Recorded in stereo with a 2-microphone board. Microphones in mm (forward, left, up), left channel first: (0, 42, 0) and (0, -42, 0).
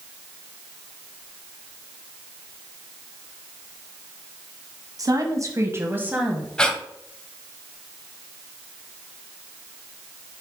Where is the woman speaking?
50° right (ahead or behind), 1.5 m; by 6.5 s 10° right (ahead or behind), 1.4 m.